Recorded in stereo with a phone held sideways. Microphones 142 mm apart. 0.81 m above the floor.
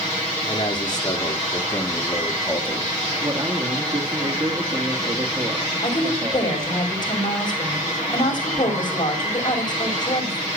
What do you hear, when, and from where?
0.5 s a man speaking: 35° left (ahead or behind), 2.5 m; by 3.0 s 5° left (ahead or behind), 1.8 m
3.2 s a man speaking: 40° right (ahead or behind), 1.8 m
5.8 s a woman speaking: 30° left (ahead or behind), 5 m